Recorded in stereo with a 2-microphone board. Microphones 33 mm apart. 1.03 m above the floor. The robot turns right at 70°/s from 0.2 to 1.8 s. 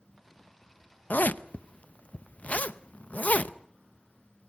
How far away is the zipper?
About 0.6 m.